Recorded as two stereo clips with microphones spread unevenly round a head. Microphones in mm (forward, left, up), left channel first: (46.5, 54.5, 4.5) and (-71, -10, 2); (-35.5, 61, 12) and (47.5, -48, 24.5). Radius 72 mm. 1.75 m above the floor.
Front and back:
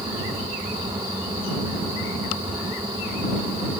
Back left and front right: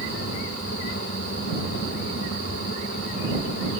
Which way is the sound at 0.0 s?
145° left.